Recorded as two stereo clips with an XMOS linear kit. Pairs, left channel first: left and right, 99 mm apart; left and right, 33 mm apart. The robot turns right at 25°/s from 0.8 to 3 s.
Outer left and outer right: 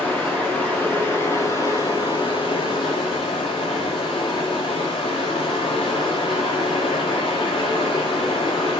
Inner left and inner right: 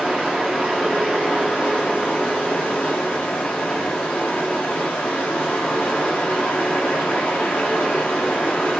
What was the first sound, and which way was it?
Running water, 15° left.